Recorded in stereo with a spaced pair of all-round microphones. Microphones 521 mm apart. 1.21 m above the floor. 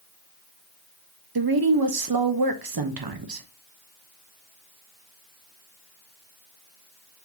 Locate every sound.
1.4 s a woman speaking: 45° right (ahead or behind), 0.5 m